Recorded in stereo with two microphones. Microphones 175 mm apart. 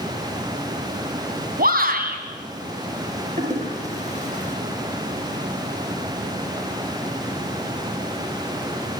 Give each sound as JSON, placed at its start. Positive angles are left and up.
{"t": 1.6, "sound": "a shout", "side_deg": -55, "distance_m": 3.0}
{"t": 3.4, "sound": "a toilet flushing", "side_deg": -40, "distance_m": 4.0}